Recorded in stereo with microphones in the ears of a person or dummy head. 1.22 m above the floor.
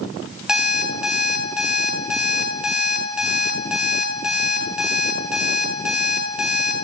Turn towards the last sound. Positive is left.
turn(degrees=-5)  # may be behind; listen again after turning